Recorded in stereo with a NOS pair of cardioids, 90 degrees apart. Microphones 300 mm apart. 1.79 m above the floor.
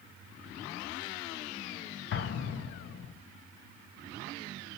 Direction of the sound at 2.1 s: 40° left.